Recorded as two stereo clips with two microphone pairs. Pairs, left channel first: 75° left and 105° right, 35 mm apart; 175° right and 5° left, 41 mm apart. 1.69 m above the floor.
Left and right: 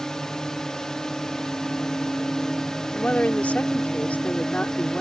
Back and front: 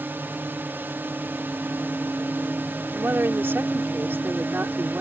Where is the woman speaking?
30° left.